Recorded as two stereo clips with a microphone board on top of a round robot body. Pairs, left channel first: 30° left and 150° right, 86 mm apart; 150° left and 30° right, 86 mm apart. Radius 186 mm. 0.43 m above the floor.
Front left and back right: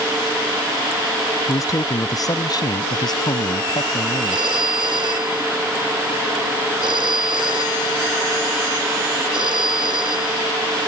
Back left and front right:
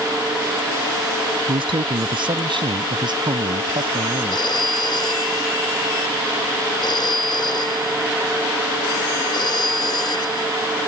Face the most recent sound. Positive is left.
turn(degrees=-175)